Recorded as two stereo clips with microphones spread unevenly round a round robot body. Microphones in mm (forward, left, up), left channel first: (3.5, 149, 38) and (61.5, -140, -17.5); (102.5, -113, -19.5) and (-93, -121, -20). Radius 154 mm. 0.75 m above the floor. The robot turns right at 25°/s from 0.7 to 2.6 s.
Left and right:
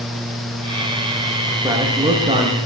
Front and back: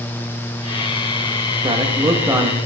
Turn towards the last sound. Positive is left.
turn(degrees=-105)